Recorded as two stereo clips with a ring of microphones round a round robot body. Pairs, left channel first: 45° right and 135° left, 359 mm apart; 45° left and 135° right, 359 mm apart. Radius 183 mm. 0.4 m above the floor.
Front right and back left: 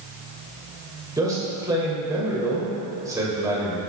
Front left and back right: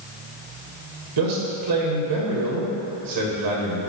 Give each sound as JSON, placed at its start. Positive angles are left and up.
{"t": 1.2, "sound": "a man speaking", "azimuth_deg": -145, "distance_m": 1.9}